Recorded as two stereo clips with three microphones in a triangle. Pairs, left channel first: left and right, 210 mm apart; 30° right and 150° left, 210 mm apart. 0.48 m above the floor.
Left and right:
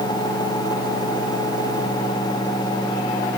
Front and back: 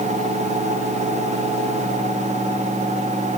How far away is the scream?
I don't hear a scream.